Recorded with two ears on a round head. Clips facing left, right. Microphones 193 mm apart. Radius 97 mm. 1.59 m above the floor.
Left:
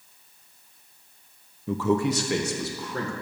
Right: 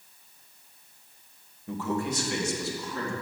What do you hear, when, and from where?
1.7 s a man speaking: 60° left (ahead or behind), 0.8 m; by 3.1 s 45° left (ahead or behind), 2 m